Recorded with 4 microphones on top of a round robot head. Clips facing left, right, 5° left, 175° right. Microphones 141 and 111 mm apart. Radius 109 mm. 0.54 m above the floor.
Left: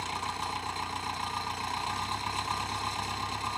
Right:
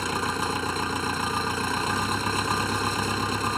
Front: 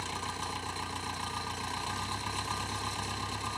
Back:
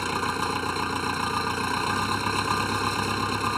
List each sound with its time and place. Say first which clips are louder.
0.0 s an engine running: right 7 dB, back 10 dB; 130° right